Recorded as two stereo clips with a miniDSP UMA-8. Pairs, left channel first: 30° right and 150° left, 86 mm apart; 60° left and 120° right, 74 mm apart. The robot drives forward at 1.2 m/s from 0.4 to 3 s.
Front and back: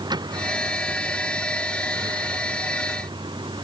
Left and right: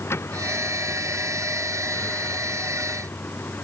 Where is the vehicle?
115° left; by 3.6 s 125° left.